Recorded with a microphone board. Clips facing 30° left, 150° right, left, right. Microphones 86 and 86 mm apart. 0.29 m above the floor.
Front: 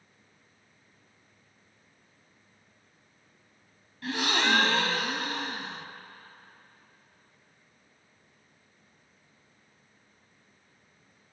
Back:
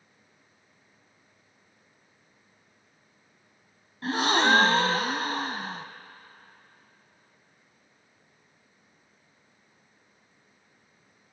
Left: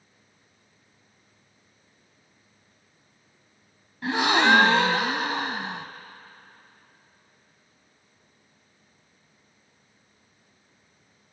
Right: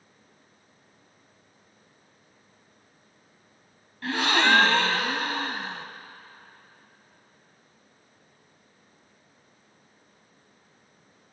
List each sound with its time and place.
4.0 s a gasp: 160° left, 0.5 m